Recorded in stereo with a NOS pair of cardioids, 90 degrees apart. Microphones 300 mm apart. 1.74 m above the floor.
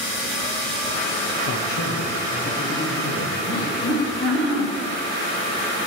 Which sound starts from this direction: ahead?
Laughter, at 3.5 s.